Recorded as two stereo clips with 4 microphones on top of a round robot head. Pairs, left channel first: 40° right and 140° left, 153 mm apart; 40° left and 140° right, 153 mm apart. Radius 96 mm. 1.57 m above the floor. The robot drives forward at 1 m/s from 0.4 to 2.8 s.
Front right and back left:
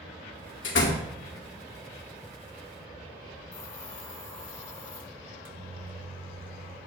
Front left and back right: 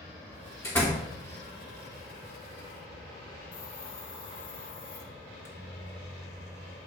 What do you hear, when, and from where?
0.6 s a door slam: 35° right, 2.5 m; by 1.1 s 40° right, 2 m
3.5 s a hiss: 25° left, 2 m
5.2 s a microwave: 110° left, 1.0 m